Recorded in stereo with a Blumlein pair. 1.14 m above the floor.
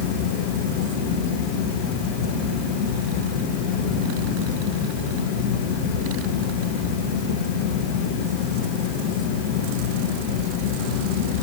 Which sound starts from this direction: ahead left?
A fan, at 0.0 s.